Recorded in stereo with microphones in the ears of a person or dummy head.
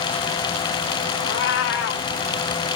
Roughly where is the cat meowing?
Left.